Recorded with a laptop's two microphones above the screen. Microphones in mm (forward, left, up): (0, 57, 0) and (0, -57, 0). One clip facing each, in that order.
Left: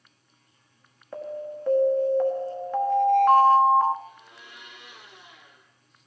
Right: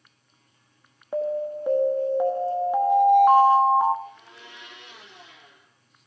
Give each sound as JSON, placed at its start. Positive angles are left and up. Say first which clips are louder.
{"t": 1.1, "sound": "an alarm", "louder": "right 8 dB", "side_deg": -15, "distance_m": 1.4}
{"t": 4.0, "sound": "a blender", "louder": "right 3 dB", "side_deg": -85, "distance_m": 7.5}